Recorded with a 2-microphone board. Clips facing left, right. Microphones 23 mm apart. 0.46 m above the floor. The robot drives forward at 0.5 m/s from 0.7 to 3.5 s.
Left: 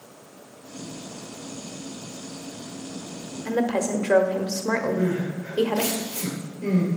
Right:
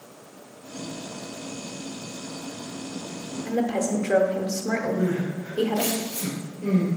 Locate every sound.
3.5 s a woman speaking: 50° left (ahead or behind), 1.3 m
5.0 s crying: 55° left (ahead or behind), 3 m